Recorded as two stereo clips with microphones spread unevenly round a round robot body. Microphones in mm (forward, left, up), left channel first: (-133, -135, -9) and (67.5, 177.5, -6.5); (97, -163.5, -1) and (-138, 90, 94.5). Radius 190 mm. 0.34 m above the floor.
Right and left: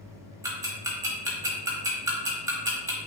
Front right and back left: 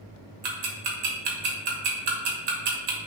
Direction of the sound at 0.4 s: 135° left.